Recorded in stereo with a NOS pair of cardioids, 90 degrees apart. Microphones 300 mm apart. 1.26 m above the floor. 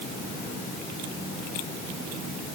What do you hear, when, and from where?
Only background noise.